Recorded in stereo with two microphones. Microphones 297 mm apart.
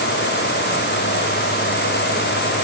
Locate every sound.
Only background noise.